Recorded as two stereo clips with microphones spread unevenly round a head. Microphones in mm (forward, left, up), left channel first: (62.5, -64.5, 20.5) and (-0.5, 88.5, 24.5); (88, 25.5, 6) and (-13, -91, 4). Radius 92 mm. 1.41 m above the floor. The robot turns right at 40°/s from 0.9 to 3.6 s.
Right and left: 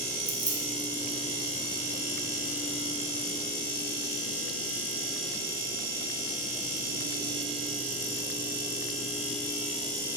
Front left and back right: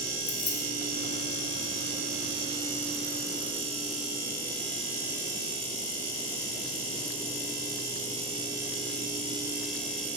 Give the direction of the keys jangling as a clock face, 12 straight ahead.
10 o'clock.